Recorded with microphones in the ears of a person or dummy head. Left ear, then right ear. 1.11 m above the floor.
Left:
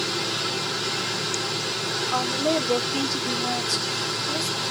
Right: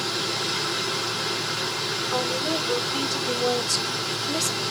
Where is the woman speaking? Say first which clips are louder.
Left 3 dB; 20° left (ahead or behind), 2.5 m; by 4.5 s 15° right (ahead or behind), 1.7 m.